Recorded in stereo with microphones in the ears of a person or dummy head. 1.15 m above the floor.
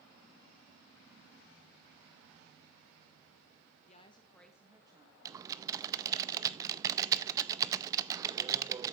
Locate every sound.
3.9 s a woman speaking: 40° left (ahead or behind), 1.6 m; by 5.2 s 25° right (ahead or behind), 2 m
5.2 s typing on a keyboard: 20° right (ahead or behind), 0.5 m